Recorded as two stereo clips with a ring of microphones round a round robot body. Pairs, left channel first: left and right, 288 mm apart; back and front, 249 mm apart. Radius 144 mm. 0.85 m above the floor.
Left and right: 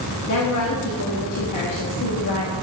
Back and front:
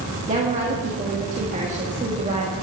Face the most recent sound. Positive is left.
turn(degrees=60)